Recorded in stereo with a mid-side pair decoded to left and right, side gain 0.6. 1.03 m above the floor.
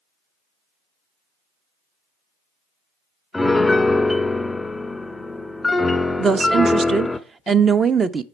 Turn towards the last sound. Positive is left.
turn(degrees=-30)